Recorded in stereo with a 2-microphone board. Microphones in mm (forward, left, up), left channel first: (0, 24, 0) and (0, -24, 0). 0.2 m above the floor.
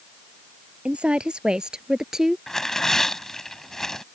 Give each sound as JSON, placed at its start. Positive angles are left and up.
{"t": 0.8, "sound": "a woman speaking", "side_deg": -25}
{"t": 2.5, "sound": "tearing paper", "side_deg": 10}